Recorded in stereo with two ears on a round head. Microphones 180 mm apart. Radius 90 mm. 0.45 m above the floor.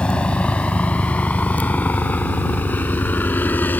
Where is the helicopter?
5° left (ahead or behind); by 3.8 s 10° left (ahead or behind).